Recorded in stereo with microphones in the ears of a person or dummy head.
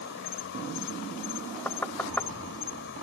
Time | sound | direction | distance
0.0 | an insect | 65° left (ahead or behind) | ?
1.6 | knocking | 10° left (ahead or behind) | ?